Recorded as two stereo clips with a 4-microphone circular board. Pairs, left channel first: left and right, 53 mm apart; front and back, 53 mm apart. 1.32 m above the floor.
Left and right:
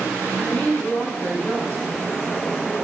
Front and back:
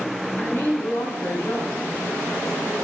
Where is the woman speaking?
30° left, 4.5 m.